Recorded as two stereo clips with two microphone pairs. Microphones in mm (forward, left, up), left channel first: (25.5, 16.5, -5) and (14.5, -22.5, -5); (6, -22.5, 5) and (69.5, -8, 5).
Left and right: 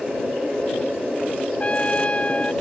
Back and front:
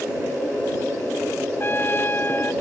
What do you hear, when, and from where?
1.6 s a trumpet: 135° left